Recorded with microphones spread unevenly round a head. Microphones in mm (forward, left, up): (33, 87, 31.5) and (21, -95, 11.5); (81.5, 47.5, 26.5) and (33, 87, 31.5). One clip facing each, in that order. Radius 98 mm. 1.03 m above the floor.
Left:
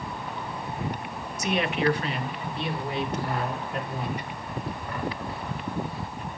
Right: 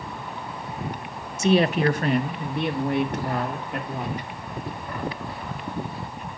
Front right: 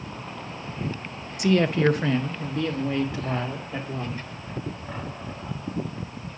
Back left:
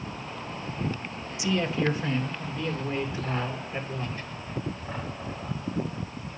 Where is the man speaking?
40° right, 0.7 m; by 4.3 s 65° right, 3 m.